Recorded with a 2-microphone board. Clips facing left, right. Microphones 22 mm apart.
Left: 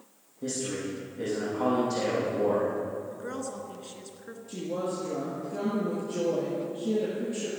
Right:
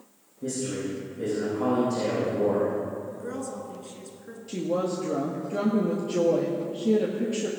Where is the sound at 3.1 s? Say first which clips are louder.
Right 2 dB; 20° left (ahead or behind), 1.2 m.